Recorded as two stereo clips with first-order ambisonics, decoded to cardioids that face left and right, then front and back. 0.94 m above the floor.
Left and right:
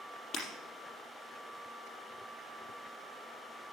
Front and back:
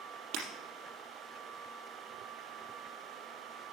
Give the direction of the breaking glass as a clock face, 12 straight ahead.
7 o'clock.